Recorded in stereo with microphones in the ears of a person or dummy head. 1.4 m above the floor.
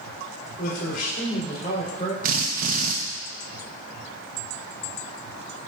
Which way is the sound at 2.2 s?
50° right (ahead or behind).